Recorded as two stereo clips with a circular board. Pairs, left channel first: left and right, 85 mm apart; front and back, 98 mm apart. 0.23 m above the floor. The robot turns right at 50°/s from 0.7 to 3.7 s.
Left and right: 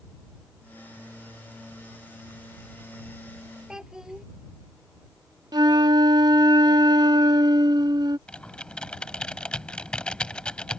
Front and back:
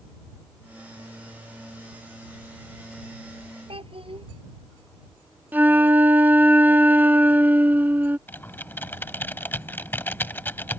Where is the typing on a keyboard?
30° left.